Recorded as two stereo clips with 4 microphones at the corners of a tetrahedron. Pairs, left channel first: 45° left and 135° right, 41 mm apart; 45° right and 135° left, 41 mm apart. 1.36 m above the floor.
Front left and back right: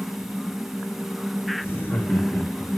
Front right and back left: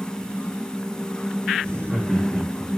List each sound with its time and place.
1.6 s laughter: 25° left, 3.5 m; by 2.7 s 35° left, 2.5 m